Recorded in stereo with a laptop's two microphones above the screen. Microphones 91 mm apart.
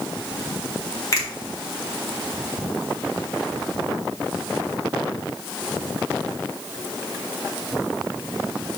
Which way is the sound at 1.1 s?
35° left (ahead or behind).